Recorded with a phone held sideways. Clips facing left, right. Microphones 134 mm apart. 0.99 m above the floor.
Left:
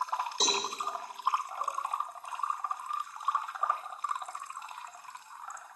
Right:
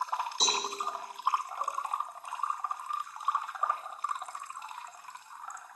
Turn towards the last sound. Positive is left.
turn(degrees=65)  # may be behind; listen again after turning